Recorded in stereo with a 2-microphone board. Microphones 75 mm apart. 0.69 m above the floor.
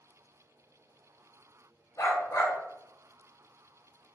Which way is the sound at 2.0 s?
40° left (ahead or behind).